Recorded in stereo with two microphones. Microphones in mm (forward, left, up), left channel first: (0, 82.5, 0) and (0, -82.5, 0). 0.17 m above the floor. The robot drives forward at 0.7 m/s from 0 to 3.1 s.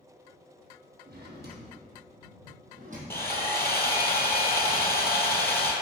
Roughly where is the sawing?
Centre.